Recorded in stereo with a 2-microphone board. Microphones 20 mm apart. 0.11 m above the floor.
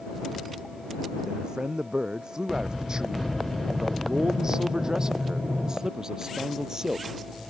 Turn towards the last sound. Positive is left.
turn(degrees=-25)  # may be behind; listen again after turning